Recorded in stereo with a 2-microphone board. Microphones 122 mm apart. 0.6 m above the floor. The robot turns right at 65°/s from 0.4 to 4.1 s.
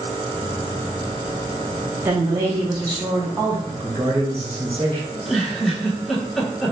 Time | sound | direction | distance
2.0 | a woman speaking | 140° right | 0.7 m
3.7 | a man speaking | 35° right (ahead or behind) | 1.1 m
5.1 | a giggle | centre (ahead or behind) | 1.4 m